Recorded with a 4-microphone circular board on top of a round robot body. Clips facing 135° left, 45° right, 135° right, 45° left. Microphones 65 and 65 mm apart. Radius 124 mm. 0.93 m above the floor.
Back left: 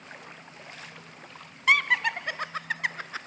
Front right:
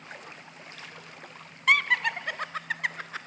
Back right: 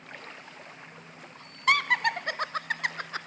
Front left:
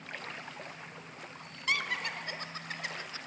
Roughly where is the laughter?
Behind right.